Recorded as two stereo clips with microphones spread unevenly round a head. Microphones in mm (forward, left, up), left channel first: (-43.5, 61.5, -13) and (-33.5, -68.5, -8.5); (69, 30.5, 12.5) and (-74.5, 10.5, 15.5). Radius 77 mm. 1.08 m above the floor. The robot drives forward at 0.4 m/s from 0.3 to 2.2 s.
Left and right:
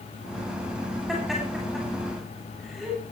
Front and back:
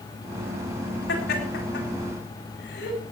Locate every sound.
1.1 s laughter: 5° left, 8 m